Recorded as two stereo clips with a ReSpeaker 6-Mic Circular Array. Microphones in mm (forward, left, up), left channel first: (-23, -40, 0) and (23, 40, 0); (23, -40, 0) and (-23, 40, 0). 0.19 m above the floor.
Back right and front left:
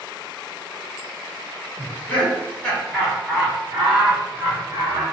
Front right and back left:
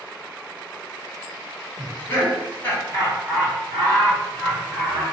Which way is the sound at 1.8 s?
95° right.